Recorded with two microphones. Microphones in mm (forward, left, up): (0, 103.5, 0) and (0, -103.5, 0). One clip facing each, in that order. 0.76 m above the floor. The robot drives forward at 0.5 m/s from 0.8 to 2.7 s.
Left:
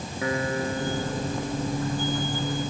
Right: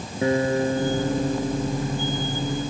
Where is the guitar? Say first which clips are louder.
Right 7 dB; 30° right (ahead or behind).